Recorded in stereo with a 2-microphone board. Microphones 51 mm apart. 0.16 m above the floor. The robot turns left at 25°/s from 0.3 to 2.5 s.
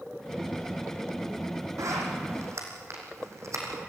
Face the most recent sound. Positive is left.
turn(degrees=-70)  # may be behind; listen again after turning